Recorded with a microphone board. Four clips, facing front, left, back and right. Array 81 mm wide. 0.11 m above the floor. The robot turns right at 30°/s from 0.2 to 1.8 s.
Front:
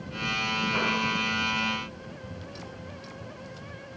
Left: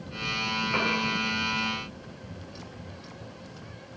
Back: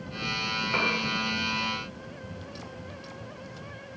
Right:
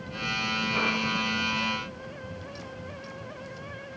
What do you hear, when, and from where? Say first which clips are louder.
0.7 s a piano: left 1 dB, back 1 dB; 145° left, 8 m; by 1.0 s 155° left, 8 m